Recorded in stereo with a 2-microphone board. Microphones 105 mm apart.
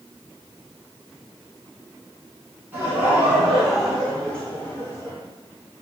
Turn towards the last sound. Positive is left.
turn(degrees=30)  # may be behind; listen again after turning